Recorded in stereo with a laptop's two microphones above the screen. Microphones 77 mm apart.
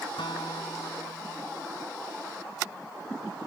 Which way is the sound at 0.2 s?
75° left (ahead or behind).